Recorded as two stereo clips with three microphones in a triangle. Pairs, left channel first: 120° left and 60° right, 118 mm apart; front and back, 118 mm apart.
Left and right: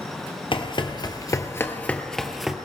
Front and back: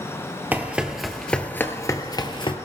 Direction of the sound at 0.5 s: 110° left.